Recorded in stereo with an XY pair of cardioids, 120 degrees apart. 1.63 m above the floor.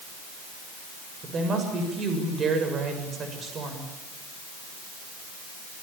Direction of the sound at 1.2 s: 40° right.